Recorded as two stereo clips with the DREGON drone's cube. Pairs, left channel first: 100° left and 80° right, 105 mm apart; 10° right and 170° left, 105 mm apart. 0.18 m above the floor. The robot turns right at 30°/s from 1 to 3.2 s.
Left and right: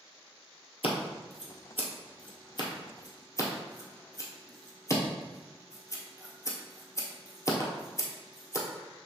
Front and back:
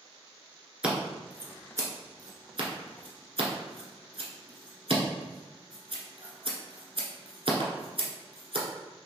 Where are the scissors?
90° left, 1.2 m; by 8.7 s 155° left, 1.2 m.